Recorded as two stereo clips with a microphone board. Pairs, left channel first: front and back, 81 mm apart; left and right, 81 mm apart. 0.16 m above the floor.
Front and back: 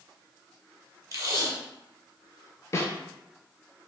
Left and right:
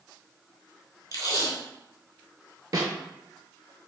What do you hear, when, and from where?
1.1 s tape being pulled: 130° left, 0.7 m
2.7 s a snare drum: 55° right, 0.5 m